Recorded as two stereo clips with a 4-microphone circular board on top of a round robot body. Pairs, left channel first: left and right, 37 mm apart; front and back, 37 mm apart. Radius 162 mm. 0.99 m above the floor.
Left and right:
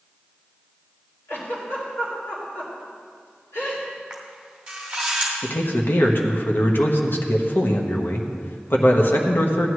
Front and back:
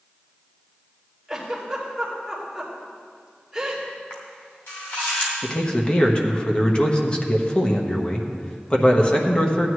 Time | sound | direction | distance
1.3 | a giggle | 90° left | 2.5 m
4.1 | a camera shutter | 20° right | 0.9 m
5.4 | a man speaking | 65° left | 1.2 m